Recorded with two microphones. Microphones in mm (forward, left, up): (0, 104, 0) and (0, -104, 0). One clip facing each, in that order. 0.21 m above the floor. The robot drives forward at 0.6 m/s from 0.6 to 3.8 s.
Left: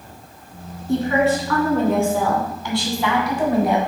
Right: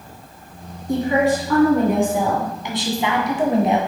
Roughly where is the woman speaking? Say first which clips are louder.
Even; centre.